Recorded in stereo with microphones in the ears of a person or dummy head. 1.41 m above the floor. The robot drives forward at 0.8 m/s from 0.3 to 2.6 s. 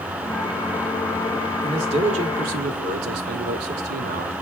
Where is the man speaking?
25° right (ahead or behind), 1.6 m; by 4.3 s 40° right (ahead or behind), 0.9 m.